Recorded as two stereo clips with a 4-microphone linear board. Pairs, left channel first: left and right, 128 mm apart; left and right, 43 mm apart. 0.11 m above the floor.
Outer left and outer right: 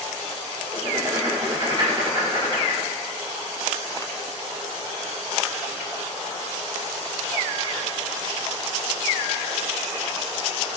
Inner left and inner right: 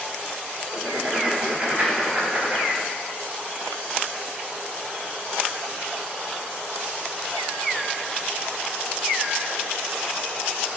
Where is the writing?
35° right (ahead or behind), 1.9 m.